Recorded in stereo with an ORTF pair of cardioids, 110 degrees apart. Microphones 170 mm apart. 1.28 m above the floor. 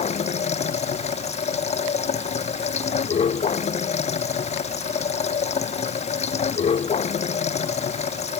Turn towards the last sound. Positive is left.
turn(degrees=40)